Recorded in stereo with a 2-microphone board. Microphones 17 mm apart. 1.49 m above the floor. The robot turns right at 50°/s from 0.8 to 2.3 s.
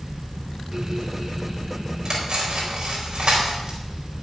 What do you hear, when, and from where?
2.0 s cutlery clinking: 35° right (ahead or behind), 4 m; by 3.8 s 50° right (ahead or behind), 4 m